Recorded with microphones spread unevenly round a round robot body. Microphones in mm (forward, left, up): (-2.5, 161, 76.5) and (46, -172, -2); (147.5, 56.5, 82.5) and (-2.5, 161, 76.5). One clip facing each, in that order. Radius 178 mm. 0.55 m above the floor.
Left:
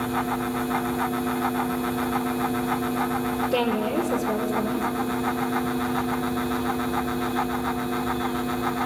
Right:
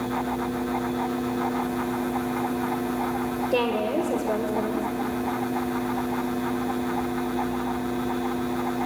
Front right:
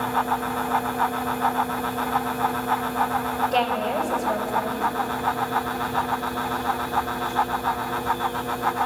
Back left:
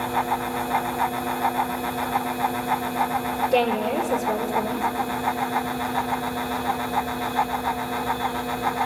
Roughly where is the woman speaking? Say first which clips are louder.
Even, back left 4 dB; behind.